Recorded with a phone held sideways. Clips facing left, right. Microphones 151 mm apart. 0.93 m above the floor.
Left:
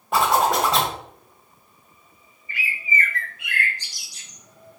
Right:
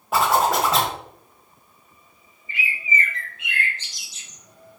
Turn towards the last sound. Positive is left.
turn(degrees=-25)  # may be behind; listen again after turning